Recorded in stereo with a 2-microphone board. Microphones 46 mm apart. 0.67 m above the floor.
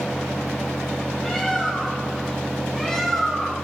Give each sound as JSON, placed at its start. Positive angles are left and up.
{"t": 1.2, "sound": "a bird", "side_deg": 5, "distance_m": 4.0}